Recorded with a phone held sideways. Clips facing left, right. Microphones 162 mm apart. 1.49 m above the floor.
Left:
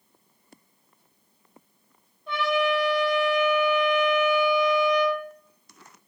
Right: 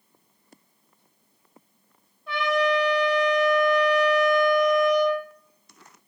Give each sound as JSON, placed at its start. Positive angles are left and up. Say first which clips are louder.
{"t": 2.3, "sound": "a trumpet", "louder": "right 1 dB", "side_deg": 0, "distance_m": 1.6}